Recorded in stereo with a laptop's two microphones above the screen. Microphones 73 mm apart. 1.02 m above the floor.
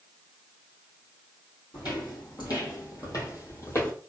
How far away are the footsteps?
About 2.5 m.